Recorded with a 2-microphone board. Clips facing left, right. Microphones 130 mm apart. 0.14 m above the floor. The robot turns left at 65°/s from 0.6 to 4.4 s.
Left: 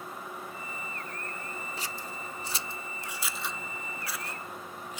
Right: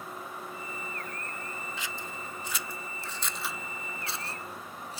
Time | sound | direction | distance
1.8 | scissors | 40° left (ahead or behind) | ?